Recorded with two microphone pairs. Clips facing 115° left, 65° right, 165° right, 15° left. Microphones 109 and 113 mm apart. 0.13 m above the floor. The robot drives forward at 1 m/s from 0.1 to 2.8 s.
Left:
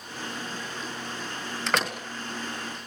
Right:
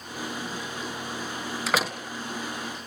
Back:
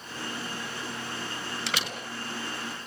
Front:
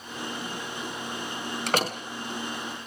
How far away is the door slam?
About 1.7 m.